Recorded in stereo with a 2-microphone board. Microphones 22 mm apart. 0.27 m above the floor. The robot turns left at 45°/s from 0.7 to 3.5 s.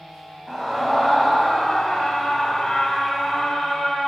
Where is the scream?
165° left, 1.3 m; by 4.1 s 35° left, 1.3 m.